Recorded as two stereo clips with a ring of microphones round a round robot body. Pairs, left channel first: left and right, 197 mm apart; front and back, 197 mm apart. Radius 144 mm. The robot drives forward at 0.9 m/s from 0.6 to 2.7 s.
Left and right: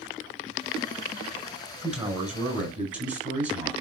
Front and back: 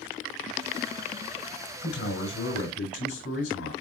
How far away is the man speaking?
About 4.5 m.